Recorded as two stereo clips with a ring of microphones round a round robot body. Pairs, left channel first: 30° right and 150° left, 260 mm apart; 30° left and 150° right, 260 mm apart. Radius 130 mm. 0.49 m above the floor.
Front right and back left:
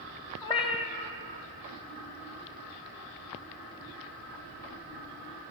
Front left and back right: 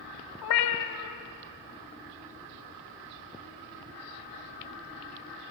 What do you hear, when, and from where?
0.4 s a cat meowing: 40° left, 1.2 m